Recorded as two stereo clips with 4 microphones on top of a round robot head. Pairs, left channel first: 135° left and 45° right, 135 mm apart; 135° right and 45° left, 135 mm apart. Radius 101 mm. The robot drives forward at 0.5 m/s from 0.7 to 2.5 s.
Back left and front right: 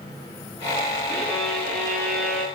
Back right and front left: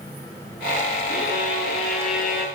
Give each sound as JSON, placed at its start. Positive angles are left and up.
{"t": 1.1, "sound": "a violin", "azimuth_deg": -140, "distance_m": 6.0}